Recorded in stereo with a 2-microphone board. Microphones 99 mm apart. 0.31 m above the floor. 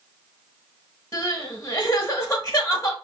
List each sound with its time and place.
1.1 s crying: 30° left (ahead or behind), 1.2 m